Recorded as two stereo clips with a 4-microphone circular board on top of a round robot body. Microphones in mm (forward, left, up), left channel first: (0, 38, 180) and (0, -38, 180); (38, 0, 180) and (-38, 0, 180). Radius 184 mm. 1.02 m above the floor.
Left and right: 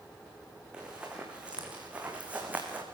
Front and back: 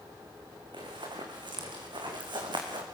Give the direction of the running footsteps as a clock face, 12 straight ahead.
6 o'clock.